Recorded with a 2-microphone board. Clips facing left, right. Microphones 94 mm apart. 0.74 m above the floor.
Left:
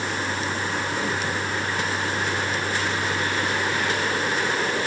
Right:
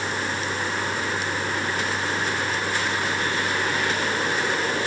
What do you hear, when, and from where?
Only background noise.